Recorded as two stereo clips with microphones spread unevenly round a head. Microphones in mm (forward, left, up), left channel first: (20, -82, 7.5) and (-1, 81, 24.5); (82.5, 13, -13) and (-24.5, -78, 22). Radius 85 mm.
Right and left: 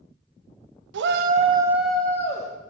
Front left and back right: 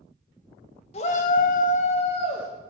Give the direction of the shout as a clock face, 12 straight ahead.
9 o'clock.